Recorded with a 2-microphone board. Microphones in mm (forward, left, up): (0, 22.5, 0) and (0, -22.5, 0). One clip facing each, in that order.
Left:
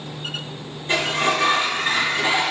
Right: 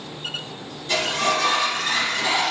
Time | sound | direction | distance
0.9 | a sliding door | 25° left (ahead or behind) | 4 m